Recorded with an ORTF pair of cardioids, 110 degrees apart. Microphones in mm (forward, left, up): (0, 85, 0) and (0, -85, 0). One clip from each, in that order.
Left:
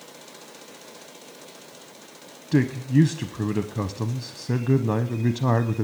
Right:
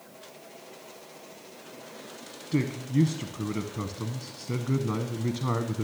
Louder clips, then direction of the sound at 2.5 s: Left 6 dB; 40° left.